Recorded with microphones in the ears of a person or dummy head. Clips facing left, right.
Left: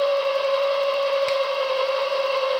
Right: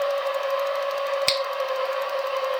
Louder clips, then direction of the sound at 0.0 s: Left 4 dB; 55° left (ahead or behind).